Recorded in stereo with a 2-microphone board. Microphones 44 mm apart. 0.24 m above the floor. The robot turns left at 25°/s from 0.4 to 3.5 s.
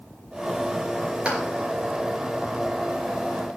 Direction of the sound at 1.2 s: 25° right (ahead or behind).